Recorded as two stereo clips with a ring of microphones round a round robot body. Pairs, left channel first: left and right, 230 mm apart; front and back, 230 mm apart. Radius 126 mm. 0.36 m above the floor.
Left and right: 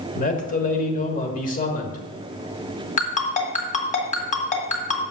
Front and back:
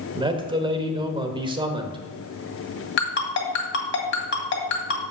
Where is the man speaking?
120° left, 1.2 m.